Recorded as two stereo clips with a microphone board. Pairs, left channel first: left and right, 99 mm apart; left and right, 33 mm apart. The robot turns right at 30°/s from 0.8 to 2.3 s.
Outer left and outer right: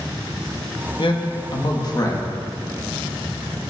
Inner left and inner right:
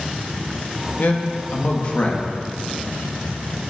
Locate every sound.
1.0 s a man speaking: 55° left (ahead or behind), 1.0 m; by 2.3 s 30° left (ahead or behind), 1.0 m